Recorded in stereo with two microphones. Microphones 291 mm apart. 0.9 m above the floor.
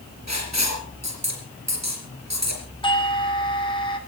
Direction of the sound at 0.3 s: 65° right (ahead or behind).